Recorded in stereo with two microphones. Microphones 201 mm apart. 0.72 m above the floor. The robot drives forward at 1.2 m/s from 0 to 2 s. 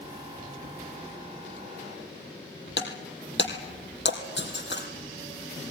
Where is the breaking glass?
65° left (ahead or behind), 3.5 m.